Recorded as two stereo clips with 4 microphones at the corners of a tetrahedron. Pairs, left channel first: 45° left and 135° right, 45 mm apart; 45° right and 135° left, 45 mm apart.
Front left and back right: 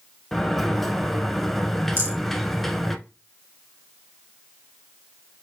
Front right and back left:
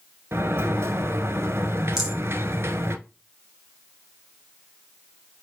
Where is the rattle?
150° right, 2.5 m.